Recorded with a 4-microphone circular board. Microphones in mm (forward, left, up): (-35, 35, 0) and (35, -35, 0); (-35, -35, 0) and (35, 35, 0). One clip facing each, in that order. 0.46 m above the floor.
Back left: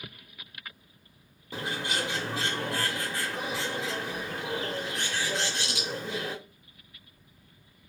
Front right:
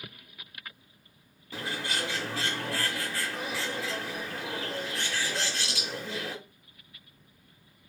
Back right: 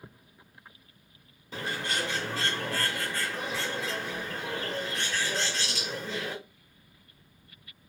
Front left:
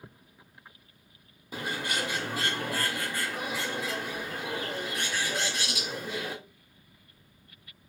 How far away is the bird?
About 1.2 m.